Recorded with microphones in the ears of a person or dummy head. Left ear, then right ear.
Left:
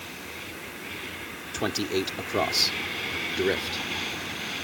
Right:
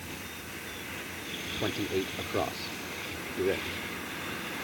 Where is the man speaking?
65° left (ahead or behind); by 3.8 s 60° left (ahead or behind).